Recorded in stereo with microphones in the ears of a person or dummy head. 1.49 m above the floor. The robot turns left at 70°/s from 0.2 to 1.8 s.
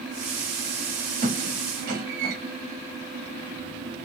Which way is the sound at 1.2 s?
40° right (ahead or behind).